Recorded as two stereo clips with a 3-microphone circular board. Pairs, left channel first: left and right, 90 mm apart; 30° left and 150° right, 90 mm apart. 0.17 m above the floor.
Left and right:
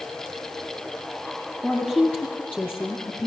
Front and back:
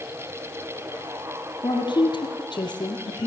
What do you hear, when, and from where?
1.6 s a woman speaking: 15° left, 3.5 m; by 3.3 s 20° left, 2.5 m